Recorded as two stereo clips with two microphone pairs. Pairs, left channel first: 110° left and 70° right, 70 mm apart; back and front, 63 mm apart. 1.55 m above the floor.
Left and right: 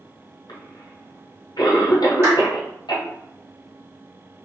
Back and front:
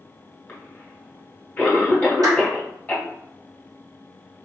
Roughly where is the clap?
Ahead.